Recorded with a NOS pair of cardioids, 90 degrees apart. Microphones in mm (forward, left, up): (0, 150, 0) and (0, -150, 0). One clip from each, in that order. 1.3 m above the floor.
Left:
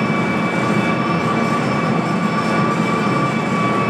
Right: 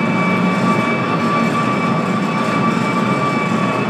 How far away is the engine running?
About 1.0 m.